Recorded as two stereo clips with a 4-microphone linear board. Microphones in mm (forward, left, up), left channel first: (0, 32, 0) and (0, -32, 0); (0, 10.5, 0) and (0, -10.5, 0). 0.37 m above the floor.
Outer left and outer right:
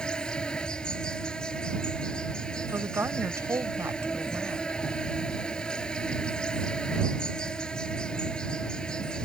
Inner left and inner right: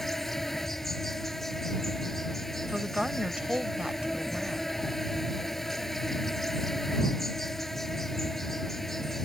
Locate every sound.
0.0 s an insect: 15° left (ahead or behind)
2.7 s a woman speaking: 50° right (ahead or behind)